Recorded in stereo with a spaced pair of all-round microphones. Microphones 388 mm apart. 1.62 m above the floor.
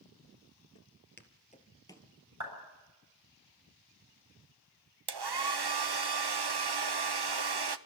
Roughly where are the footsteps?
Left.